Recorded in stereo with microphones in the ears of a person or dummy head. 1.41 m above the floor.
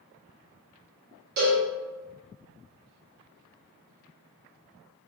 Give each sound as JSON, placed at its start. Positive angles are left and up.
{"t": 1.4, "sound": "a cowbell", "side_deg": -50, "distance_m": 1.3}